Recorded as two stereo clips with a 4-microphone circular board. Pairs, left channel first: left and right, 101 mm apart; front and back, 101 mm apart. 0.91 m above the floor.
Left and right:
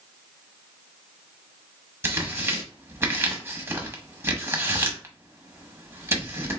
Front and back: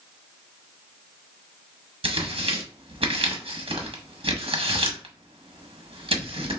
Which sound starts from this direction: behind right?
Tearing paper, at 2.0 s.